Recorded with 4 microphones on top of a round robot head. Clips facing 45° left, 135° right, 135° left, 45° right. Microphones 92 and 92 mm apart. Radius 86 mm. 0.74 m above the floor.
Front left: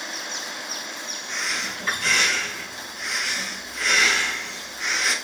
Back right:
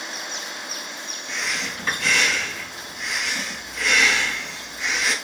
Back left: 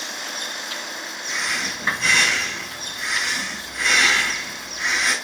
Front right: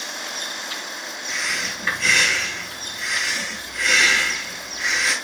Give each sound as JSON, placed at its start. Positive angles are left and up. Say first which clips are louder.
{"t": 1.3, "sound": "breathing", "louder": "back right 1 dB, back left 1 dB", "azimuth_deg": -155, "distance_m": 4.0}